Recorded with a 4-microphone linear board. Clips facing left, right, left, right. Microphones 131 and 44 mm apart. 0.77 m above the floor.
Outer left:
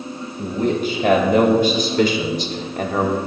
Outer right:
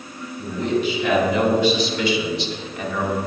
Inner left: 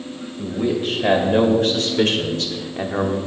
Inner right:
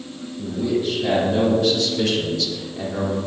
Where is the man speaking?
50° left (ahead or behind), 4 m; by 3.2 s 45° left (ahead or behind), 1.9 m.